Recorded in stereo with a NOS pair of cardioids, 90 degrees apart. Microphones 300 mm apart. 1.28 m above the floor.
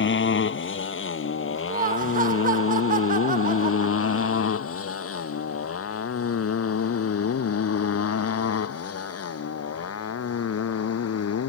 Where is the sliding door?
I don't hear a sliding door.